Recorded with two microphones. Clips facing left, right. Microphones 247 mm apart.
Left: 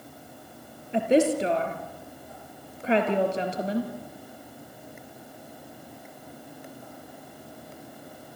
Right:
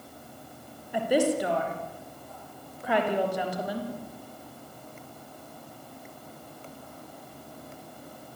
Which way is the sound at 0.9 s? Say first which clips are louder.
Left 3 dB; 25° left (ahead or behind).